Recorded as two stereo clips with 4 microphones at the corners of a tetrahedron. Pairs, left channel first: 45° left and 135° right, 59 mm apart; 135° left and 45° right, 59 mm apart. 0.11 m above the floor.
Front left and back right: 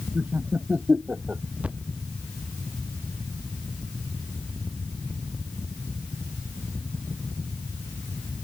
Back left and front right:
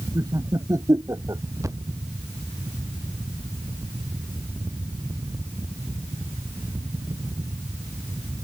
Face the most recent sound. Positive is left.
turn(degrees=-70)